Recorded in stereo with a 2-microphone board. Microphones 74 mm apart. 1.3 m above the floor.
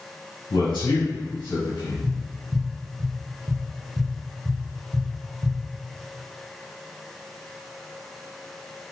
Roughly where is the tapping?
Right.